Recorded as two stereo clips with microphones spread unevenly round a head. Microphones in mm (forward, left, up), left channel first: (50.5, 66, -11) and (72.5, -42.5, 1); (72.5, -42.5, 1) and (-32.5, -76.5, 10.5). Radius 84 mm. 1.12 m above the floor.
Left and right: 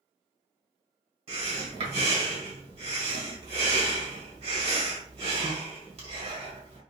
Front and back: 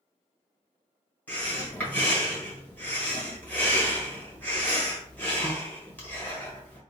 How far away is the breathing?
About 1.9 m.